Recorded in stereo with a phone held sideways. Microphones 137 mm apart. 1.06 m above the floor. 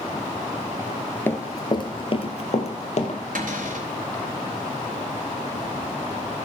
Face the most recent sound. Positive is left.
turn(degrees=-80)